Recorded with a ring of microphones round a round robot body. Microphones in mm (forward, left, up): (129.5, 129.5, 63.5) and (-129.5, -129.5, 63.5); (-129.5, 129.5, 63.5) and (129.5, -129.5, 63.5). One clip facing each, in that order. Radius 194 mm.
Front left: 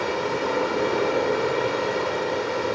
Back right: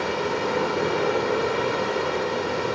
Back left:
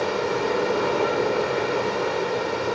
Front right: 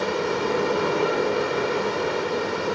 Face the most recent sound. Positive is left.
turn(degrees=-110)